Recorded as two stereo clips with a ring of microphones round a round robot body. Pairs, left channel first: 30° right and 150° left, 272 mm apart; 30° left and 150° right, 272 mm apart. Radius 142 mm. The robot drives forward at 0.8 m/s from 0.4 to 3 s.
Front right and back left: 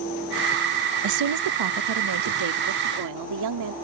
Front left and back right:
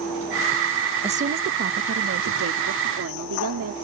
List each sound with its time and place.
1.0 s a woman speaking: 140° left; by 3.7 s 170° left